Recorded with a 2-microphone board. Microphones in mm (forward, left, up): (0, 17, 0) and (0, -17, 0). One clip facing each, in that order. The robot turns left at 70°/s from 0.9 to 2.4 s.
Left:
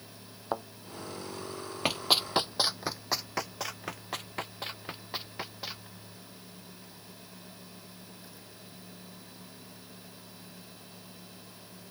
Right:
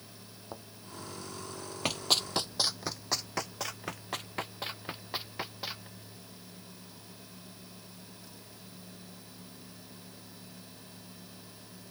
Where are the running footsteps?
20° left (ahead or behind); by 5.9 s centre (ahead or behind).